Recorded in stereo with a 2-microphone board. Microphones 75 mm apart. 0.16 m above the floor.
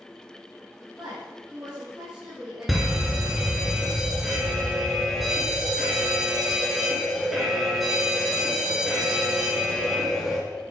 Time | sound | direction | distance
1.0 | a woman speaking | 10° right (ahead or behind) | 4.5 m
2.7 | a fire alarm | centre (ahead or behind) | 3.5 m